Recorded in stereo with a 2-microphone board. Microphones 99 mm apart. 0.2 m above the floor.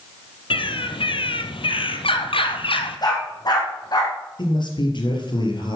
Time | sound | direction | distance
0.5 | a bird | 70° left (ahead or behind) | 1.2 m
3.0 | a dog barking | 50° left (ahead or behind) | 4.5 m
4.4 | a man speaking | 55° left (ahead or behind) | 4 m